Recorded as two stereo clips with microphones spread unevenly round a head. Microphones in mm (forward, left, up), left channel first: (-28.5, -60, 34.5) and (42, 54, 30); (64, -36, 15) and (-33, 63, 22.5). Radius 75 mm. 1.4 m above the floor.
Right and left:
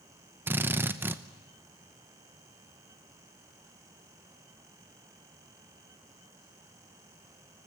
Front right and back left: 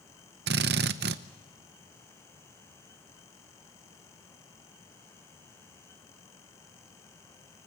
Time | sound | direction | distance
0.5 | a drill | 135° left | 0.8 m